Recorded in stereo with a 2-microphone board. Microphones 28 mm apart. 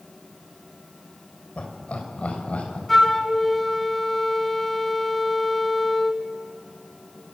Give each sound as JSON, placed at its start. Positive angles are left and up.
{"t": 1.6, "sound": "laughter", "side_deg": 50, "distance_m": 4.5}
{"t": 2.9, "sound": "a flute", "side_deg": 0, "distance_m": 2.0}